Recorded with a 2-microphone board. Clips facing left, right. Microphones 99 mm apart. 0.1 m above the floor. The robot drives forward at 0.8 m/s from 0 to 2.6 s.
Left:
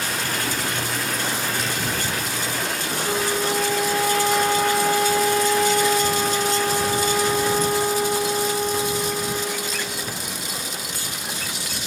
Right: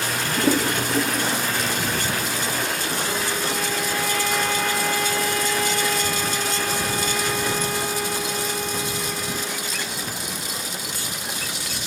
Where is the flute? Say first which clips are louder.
Left 3 dB; 25° left (ahead or behind).